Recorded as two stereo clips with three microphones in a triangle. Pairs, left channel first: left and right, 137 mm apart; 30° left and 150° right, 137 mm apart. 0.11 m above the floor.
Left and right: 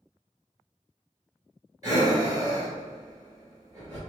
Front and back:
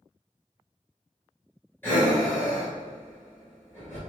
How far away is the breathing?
About 1.8 m.